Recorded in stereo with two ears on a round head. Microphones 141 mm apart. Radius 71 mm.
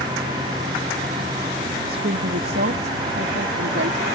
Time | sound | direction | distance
1.9 | a woman speaking | 65° right (ahead or behind) | ?